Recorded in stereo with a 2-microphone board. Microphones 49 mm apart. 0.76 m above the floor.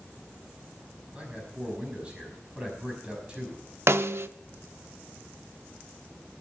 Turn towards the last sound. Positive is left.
turn(degrees=-65)  # may be behind; listen again after turning